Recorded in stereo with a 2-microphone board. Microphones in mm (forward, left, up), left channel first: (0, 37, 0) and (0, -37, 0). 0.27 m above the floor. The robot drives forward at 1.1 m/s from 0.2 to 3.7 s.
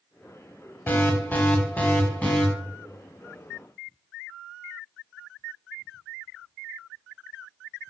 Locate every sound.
0.9 s an alarm: 30° left (ahead or behind), 1.9 m; by 2.5 s 20° left (ahead or behind), 3 m